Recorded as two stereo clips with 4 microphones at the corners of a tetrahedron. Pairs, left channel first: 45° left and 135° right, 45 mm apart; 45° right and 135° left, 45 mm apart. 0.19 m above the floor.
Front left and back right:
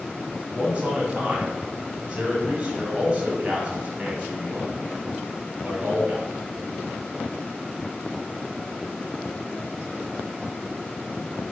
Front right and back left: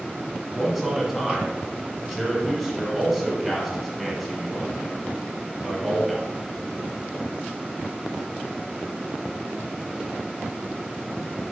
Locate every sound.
0.5 s a man speaking: 140° right, 1.0 m